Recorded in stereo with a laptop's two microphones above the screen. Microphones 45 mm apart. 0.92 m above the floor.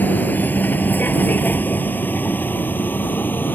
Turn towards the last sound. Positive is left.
turn(degrees=45)  # may be behind; listen again after turning